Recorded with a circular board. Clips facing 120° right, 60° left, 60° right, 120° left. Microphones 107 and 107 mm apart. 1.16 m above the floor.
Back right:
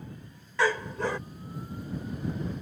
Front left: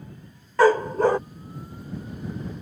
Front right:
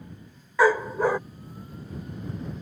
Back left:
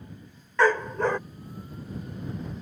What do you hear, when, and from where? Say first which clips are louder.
0.6 s a dog barking: front left 10 dB, front right 2 dB; 20° left